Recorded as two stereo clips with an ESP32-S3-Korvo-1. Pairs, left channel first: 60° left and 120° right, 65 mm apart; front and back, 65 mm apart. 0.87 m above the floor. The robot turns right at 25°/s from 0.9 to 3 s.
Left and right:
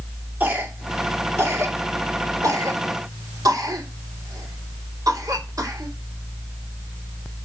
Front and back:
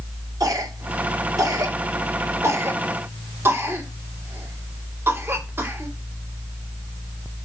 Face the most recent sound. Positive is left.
turn(degrees=-130)